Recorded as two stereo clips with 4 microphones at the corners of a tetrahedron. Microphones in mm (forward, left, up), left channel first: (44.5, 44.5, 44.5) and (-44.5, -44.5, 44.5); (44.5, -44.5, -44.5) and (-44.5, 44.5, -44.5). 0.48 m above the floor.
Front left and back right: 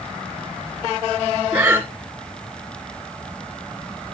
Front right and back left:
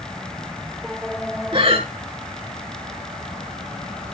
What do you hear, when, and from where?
1.5 s breathing: 150° left, 2.0 m